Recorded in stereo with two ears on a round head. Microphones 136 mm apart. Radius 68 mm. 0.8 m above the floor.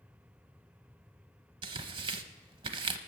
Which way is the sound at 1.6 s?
35° right (ahead or behind).